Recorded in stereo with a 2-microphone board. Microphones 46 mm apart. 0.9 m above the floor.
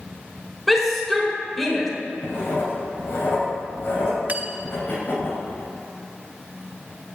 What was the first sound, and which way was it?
A shout, 5° left (ahead or behind).